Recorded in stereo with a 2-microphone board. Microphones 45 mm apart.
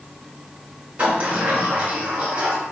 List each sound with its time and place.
1.0 s a sliding door: 30° right (ahead or behind), 1.5 m